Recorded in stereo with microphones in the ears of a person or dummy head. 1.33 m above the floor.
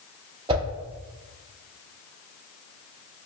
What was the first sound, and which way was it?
A whoosh, 25° right (ahead or behind).